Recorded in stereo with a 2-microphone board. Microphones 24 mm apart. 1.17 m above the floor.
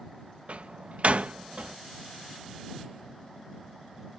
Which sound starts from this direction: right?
A door slam, at 0.5 s.